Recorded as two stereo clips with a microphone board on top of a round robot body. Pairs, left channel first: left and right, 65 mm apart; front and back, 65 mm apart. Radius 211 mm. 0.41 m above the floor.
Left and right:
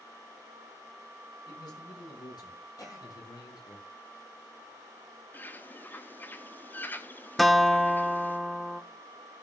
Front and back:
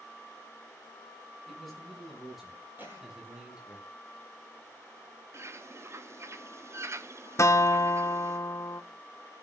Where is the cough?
115° left, 7.5 m.